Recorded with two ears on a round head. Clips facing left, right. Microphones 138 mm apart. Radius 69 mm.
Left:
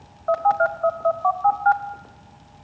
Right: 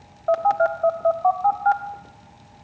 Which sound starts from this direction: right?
A phone buzzing, at 0.3 s.